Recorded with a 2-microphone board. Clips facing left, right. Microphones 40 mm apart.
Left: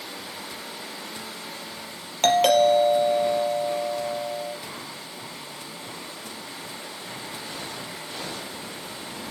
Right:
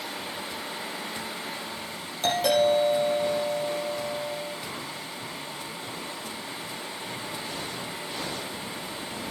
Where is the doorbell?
65° left (ahead or behind), 4 m.